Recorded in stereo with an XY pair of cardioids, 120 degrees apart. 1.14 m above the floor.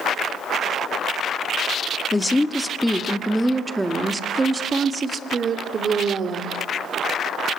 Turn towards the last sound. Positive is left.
turn(degrees=-40)